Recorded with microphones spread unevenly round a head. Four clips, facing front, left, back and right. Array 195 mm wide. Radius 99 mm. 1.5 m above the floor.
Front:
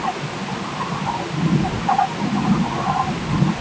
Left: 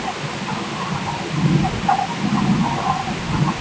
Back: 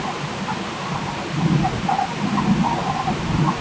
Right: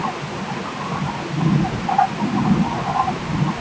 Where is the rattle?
I don't hear a rattle.